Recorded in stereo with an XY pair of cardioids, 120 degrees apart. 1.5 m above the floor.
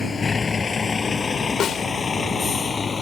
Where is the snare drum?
55° left.